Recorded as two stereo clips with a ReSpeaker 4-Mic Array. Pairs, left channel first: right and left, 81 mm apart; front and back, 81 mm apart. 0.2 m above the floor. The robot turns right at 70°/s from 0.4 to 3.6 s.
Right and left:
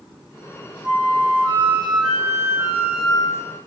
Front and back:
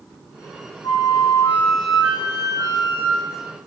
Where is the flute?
20° left, 5.5 m; by 3.6 s 150° right, 5.5 m.